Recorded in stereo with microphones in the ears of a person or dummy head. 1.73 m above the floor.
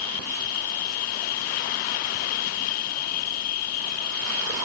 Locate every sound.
0.0 s an insect: 55° left (ahead or behind)